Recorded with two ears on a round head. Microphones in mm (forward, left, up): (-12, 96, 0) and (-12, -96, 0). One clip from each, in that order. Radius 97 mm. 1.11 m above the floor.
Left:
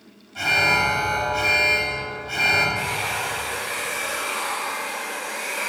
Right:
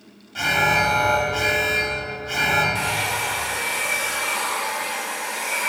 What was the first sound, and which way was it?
An alarm, 45° right (ahead or behind).